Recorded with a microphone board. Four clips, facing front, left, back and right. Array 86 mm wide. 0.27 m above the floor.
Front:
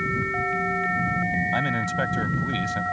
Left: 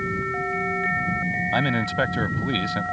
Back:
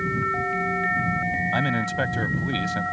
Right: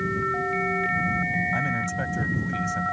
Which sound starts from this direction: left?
A man speaking, at 1.5 s.